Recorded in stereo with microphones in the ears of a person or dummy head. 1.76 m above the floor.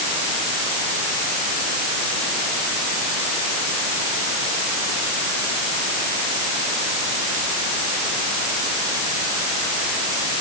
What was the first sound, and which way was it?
Only background noise.